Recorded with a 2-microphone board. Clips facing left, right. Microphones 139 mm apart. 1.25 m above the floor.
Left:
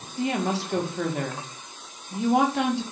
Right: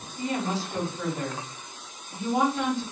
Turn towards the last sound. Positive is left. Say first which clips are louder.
# left 3 dB
turn(degrees=75)  # may be behind; listen again after turning